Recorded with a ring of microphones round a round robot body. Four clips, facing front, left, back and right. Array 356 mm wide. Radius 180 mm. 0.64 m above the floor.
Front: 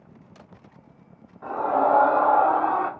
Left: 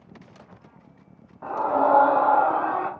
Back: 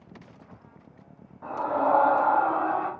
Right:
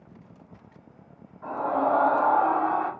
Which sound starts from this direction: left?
A scream, at 1.4 s.